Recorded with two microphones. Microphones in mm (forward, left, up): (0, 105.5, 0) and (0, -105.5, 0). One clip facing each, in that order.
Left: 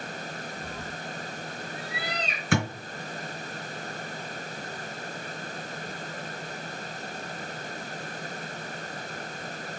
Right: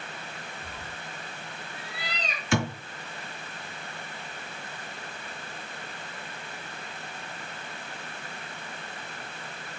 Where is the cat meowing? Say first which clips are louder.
Left 5 dB; 65° left (ahead or behind), 3.5 m.